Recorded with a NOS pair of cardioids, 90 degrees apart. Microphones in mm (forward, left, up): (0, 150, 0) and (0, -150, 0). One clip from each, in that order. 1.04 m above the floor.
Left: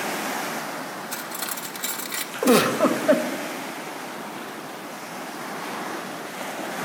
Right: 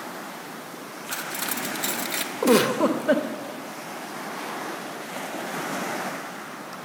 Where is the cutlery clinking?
10° right, 0.5 m.